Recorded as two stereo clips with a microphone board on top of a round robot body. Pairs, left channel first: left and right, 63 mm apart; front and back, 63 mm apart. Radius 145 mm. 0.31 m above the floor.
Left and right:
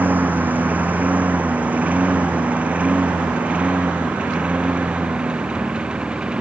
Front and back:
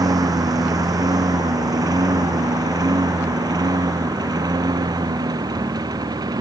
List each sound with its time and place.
0.0 s a lawn mower: 155° right; by 6.4 s 165° right